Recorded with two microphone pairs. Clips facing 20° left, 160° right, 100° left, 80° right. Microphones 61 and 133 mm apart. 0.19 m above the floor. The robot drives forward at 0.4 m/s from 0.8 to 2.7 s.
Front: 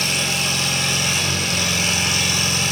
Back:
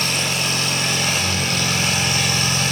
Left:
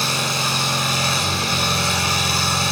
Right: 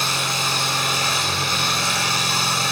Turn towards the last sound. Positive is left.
turn(degrees=160)